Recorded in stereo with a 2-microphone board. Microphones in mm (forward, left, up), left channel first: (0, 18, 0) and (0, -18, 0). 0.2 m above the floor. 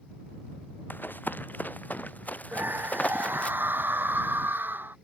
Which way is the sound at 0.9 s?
65° left (ahead or behind).